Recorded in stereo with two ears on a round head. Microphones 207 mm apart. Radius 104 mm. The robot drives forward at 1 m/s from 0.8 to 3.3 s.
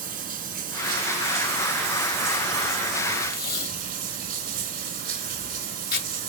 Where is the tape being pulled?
40° left (ahead or behind), 2.5 m.